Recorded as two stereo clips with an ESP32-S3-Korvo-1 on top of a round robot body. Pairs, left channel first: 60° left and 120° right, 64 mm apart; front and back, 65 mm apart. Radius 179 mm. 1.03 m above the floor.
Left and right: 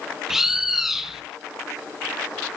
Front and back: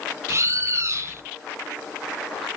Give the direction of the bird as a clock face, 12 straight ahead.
7 o'clock.